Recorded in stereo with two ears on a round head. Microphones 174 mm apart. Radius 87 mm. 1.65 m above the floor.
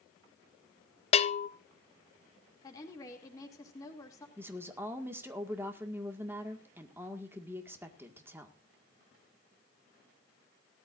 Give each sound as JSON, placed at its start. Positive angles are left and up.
{"t": 1.1, "sound": "a bell", "side_deg": 30, "distance_m": 0.7}
{"t": 2.6, "sound": "a woman speaking", "side_deg": 20, "distance_m": 2.5}
{"t": 4.4, "sound": "a woman speaking", "side_deg": -10, "distance_m": 1.9}